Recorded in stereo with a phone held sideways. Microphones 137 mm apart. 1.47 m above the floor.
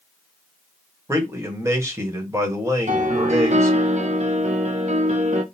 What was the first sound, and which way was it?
A man speaking, 20° right (ahead or behind).